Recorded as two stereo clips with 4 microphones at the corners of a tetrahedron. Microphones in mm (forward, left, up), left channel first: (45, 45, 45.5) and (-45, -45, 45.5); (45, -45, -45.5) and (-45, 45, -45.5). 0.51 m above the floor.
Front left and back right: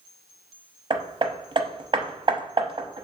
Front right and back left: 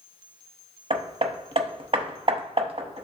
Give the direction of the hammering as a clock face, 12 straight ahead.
6 o'clock.